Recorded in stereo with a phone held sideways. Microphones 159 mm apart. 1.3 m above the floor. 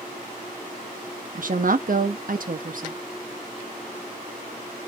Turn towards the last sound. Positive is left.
turn(degrees=-65)  # may be behind; listen again after turning